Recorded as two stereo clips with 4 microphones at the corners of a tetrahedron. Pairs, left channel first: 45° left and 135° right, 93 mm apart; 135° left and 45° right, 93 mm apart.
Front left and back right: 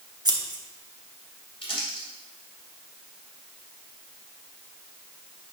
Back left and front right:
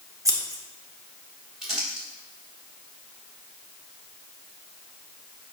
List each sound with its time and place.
0.2 s scissors: 90° right, 1.0 m
1.6 s crumpling: 40° left, 2.5 m